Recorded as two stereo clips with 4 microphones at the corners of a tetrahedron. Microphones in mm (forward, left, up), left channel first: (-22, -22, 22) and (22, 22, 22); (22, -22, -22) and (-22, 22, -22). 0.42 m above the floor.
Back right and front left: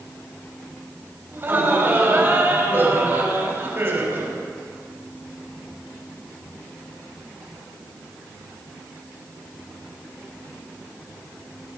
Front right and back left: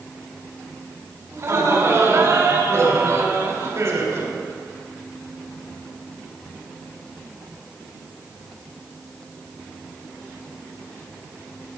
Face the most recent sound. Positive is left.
turn(degrees=90)